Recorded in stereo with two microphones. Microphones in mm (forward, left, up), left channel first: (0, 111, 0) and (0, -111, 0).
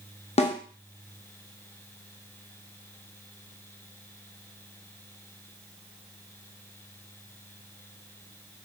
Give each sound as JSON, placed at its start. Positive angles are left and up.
{"t": 0.4, "sound": "a snare drum", "side_deg": 30, "distance_m": 0.7}